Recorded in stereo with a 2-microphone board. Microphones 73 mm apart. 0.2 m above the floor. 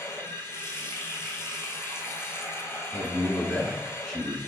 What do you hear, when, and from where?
0.0 s running water: 30° left (ahead or behind), 1.5 m
2.9 s a man speaking: 10° left (ahead or behind), 1.9 m